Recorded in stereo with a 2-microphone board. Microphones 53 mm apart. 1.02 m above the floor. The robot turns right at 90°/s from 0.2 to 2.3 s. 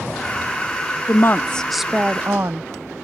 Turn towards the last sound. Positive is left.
turn(degrees=-130)